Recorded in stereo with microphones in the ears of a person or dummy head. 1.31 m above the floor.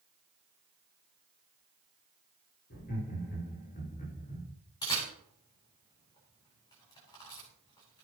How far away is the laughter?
About 6 m.